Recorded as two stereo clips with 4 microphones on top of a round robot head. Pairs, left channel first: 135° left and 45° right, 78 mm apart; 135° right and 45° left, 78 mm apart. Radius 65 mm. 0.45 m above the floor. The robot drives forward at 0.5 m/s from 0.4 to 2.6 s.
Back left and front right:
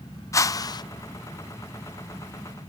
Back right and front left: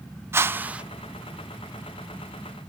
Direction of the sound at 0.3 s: 95° left.